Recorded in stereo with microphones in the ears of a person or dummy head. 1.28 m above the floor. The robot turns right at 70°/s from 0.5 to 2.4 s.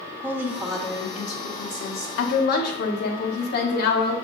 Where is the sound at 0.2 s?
10° right, 1.6 m; by 2.1 s 100° left, 1.6 m.